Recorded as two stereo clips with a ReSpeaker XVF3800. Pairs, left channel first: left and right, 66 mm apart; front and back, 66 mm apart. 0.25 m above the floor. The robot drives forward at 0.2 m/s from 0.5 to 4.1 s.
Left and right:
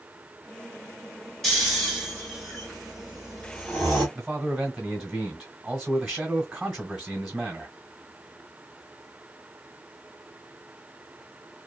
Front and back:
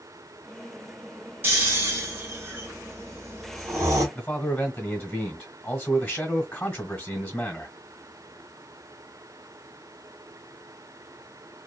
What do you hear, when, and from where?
1.4 s snoring: 175° left, 1.7 m
4.2 s a man speaking: 30° right, 1.2 m